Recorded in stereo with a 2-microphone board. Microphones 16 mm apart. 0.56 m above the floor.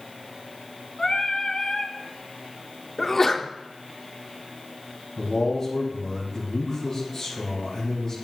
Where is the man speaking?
15° left (ahead or behind), 4.5 m.